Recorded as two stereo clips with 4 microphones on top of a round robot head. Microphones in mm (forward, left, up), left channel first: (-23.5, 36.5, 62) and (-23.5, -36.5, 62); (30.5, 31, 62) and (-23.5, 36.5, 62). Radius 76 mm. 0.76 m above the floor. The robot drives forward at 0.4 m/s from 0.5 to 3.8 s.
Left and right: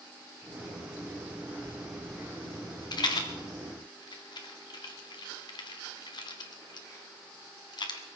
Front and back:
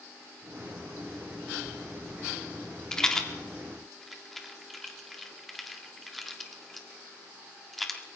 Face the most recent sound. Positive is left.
turn(degrees=80)